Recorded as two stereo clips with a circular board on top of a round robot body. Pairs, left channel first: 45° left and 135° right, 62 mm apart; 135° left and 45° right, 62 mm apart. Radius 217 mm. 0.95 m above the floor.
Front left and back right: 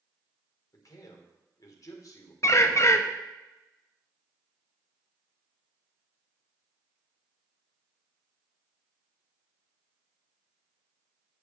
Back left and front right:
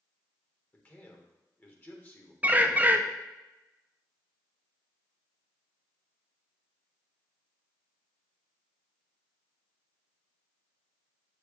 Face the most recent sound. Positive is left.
turn(degrees=15)